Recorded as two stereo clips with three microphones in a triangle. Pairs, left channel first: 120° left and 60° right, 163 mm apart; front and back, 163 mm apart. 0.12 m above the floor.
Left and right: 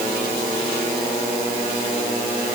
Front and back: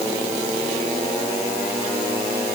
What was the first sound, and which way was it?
Only background noise.